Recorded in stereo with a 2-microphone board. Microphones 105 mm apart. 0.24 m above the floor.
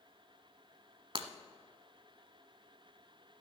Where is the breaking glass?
55° right (ahead or behind), 0.8 m.